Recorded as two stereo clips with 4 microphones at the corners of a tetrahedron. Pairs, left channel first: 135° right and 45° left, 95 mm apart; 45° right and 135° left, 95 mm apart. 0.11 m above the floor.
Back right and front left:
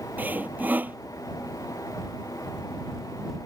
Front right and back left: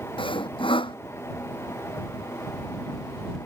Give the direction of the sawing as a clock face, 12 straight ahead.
1 o'clock.